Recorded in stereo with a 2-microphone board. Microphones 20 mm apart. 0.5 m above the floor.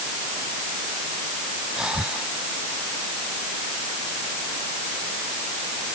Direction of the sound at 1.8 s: 45° right (ahead or behind).